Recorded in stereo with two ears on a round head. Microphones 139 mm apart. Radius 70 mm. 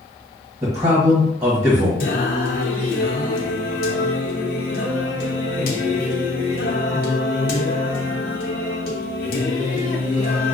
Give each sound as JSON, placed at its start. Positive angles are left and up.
{"t": 0.6, "sound": "a man speaking", "side_deg": -20, "distance_m": 1.2}
{"t": 2.0, "sound": "singing", "side_deg": 60, "distance_m": 0.8}